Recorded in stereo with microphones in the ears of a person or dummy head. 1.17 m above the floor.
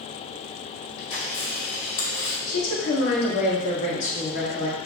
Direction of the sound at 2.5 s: 60° left (ahead or behind).